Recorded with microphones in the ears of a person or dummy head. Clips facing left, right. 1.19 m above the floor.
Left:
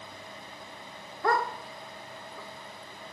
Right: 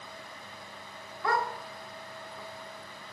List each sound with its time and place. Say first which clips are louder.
1.2 s a dog barking: left 3 dB; 40° left (ahead or behind), 1.2 m; by 3.1 s 55° left (ahead or behind), 1.9 m